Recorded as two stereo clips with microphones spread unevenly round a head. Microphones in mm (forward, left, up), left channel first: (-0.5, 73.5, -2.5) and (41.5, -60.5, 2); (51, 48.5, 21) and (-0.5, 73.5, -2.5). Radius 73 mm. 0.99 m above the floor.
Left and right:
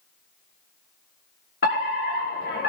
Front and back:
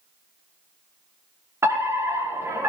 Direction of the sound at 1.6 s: 130° left.